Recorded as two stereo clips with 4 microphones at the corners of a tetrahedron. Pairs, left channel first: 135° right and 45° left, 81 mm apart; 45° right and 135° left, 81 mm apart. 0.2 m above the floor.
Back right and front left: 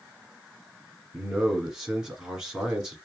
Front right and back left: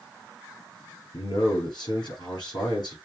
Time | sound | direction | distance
1.1 | a man speaking | 40° right | 3 m